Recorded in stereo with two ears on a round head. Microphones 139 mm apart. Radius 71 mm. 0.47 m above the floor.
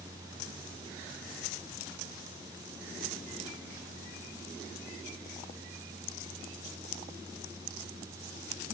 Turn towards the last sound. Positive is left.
No sound to turn to.